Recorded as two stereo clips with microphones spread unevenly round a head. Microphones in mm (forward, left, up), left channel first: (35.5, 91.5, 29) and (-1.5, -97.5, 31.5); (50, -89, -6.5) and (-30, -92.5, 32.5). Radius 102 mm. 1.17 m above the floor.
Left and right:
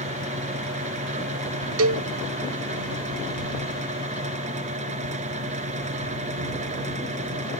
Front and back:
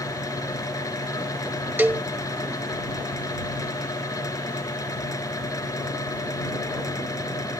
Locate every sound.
0.0 s a fan: 45° right
1.8 s a cowbell: 115° right